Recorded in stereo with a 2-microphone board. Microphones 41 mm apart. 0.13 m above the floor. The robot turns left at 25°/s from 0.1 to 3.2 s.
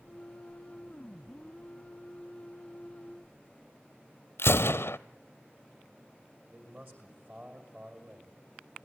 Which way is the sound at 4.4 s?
80° left.